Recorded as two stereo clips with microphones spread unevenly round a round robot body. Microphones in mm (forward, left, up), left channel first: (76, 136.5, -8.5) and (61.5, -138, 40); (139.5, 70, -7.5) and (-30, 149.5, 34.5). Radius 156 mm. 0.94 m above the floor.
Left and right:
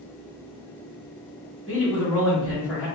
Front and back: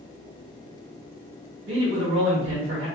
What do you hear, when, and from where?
1.7 s a man speaking: 170° left, 1.5 m